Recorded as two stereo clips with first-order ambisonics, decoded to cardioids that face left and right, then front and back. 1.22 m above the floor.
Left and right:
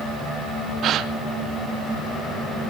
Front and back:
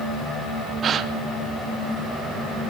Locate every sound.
0.8 s a gasp: 130° right, 0.6 m